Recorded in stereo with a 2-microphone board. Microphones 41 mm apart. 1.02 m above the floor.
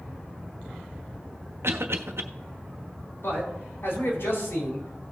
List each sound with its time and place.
1.6 s a cough: 80° right, 1.2 m
3.2 s a man speaking: 65° left (ahead or behind), 3.5 m